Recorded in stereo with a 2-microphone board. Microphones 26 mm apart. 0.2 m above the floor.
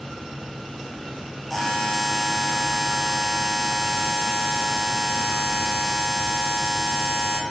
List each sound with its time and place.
1.5 s a buzzer: 10° left (ahead or behind), 1.0 m